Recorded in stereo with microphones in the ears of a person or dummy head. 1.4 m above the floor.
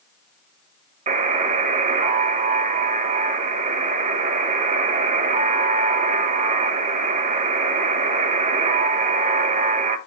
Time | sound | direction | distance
1.1 | a buzzer | 40° right (ahead or behind) | 1.3 m